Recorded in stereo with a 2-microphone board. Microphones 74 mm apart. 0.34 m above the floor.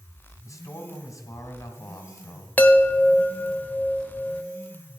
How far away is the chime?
About 0.8 m.